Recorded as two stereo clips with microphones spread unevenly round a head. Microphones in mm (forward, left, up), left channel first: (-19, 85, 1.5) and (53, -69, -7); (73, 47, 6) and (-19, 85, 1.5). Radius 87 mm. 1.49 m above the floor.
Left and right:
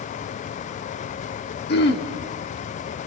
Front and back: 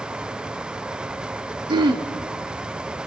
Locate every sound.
1.7 s throat clearing: 125° left, 1.7 m